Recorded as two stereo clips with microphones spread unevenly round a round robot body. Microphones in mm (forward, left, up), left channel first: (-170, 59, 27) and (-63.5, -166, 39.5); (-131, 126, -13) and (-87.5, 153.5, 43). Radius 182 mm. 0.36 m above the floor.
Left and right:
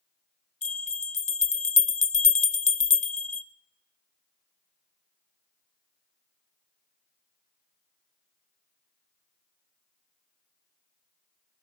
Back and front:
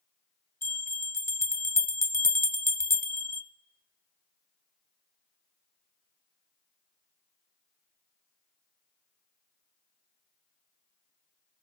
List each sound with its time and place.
0.6 s a bell: straight behind, 0.6 m